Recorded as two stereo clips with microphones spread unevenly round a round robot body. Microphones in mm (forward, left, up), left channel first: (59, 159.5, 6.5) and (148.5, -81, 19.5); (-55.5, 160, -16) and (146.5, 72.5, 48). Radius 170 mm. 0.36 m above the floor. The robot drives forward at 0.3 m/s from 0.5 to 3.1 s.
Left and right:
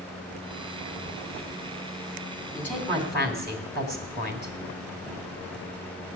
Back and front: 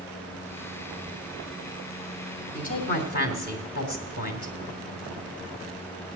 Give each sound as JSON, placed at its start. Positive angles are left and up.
{"t": 2.5, "sound": "a woman speaking", "azimuth_deg": -160, "distance_m": 2.5}